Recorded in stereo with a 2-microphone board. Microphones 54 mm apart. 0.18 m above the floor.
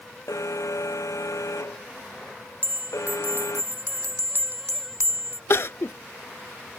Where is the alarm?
75° left (ahead or behind).